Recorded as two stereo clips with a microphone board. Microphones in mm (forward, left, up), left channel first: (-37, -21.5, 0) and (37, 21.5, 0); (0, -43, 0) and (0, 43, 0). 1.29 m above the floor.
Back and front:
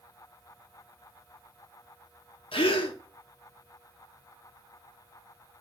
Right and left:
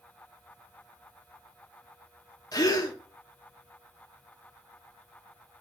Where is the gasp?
140° right, 1.0 m.